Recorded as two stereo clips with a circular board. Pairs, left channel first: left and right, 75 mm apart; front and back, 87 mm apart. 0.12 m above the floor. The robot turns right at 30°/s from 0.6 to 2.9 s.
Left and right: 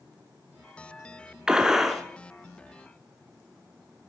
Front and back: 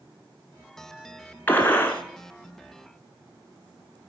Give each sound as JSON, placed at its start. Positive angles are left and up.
{"t": 1.5, "sound": "a gunshot", "azimuth_deg": -25, "distance_m": 0.7}